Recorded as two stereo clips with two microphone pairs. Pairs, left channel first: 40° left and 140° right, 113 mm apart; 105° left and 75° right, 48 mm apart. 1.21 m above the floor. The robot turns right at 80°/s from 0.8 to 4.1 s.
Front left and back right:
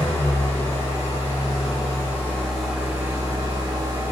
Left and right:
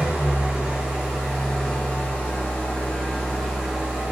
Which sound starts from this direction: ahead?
An engine running, at 0.0 s.